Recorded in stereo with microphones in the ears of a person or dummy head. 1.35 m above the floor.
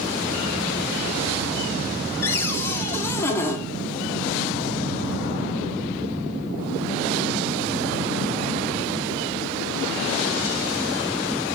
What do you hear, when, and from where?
2.2 s a cupboard door: 15° left (ahead or behind), 2 m